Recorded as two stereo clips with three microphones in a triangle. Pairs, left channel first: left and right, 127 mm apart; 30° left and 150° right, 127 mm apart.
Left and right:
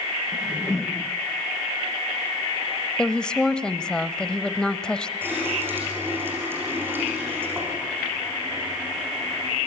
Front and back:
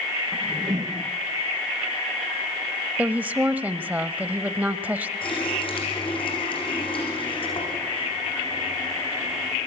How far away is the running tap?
About 9 m.